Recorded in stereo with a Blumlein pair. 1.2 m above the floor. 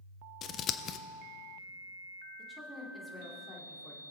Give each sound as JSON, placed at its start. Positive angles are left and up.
{"t": 0.4, "sound": "scissors", "azimuth_deg": 30, "distance_m": 0.5}
{"t": 2.4, "sound": "a woman speaking", "azimuth_deg": 5, "distance_m": 2.5}